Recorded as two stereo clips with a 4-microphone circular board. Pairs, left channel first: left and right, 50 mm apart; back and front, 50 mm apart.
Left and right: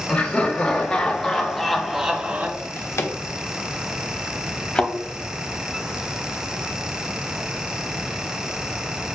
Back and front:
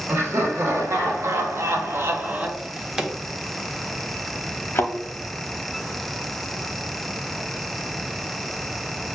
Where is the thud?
155° left, 0.6 m.